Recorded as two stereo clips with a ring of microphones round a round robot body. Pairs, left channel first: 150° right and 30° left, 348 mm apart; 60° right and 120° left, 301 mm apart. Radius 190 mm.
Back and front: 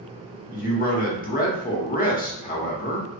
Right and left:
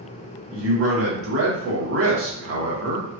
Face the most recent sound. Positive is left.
turn(degrees=150)